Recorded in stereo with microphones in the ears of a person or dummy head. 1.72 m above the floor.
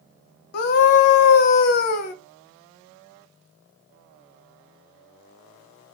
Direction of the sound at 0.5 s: 55° left (ahead or behind).